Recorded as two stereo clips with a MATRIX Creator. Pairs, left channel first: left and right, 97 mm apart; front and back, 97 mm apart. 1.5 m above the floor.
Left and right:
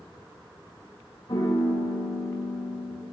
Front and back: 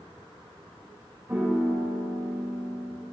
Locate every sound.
1.3 s a piano: 115° left, 4 m